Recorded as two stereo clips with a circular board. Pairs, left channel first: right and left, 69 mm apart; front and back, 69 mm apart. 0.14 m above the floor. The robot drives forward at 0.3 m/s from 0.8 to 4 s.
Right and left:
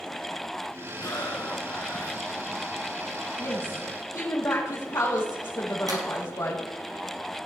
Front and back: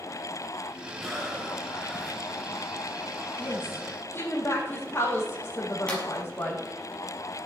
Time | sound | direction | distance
1.0 | breathing | 85° right | 3 m
3.4 | a woman speaking | 50° right | 6 m
5.9 | a clap | 75° left | 3.5 m